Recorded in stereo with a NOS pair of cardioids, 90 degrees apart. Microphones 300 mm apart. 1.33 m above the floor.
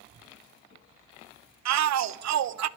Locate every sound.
1.6 s a shout: 60° right, 1.0 m